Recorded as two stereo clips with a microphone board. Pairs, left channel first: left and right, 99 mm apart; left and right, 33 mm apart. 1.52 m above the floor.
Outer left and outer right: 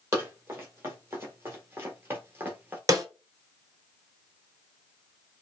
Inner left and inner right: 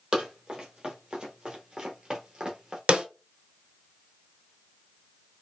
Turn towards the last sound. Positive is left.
turn(degrees=-35)  # may be behind; listen again after turning